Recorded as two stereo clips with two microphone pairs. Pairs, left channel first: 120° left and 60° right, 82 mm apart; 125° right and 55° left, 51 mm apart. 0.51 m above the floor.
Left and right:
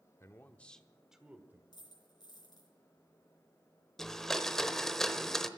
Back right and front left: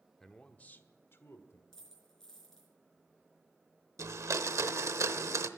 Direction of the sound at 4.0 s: 35° left.